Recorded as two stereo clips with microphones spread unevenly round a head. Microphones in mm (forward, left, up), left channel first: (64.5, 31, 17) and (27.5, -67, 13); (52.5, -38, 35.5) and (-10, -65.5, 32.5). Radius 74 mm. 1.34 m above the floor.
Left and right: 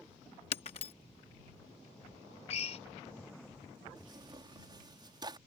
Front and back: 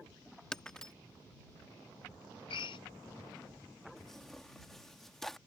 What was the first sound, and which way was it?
Breaking glass, 105° left.